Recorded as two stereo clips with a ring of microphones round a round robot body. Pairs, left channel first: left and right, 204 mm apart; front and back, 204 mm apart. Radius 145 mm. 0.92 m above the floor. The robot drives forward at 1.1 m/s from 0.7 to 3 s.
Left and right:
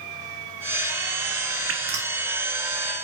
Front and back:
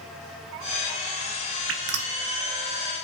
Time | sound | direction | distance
1.7 | dripping | 135° right | 0.6 m